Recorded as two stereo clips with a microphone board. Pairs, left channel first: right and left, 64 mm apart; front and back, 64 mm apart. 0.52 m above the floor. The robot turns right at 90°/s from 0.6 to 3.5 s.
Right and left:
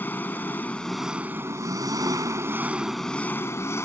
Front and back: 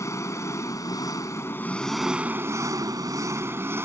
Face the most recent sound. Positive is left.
turn(degrees=-130)